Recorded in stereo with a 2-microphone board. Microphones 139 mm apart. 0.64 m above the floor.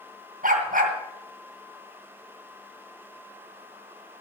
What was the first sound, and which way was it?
A dog barking, 90° right.